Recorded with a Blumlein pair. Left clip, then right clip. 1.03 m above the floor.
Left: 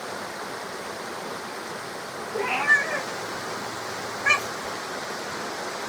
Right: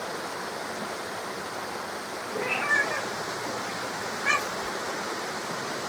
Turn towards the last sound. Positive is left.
turn(degrees=-10)